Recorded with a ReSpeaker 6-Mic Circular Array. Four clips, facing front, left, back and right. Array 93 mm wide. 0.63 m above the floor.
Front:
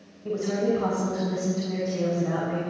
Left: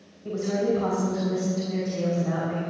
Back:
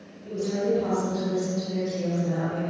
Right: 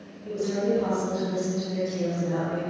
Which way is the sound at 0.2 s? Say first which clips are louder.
Left 1 dB, front 1 dB; 15° left.